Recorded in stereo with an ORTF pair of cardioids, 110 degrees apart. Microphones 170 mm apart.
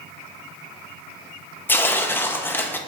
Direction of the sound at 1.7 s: 10° left.